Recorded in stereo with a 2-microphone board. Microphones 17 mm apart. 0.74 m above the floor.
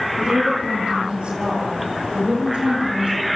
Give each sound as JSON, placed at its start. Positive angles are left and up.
{"t": 0.2, "sound": "a woman speaking", "side_deg": -75, "distance_m": 9.5}